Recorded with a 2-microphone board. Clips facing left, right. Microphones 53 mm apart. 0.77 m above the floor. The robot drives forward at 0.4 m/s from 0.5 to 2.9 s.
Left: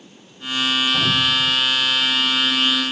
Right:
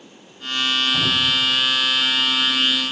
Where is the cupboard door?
25° left (ahead or behind), 4.5 m.